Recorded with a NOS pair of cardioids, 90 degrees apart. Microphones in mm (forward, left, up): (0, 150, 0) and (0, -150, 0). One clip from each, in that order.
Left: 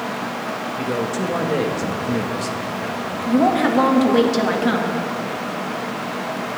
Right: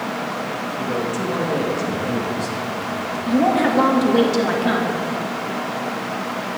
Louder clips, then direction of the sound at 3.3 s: Even; 10° left.